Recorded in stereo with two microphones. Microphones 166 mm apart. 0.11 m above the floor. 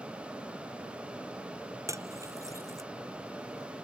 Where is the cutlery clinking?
15° right (ahead or behind).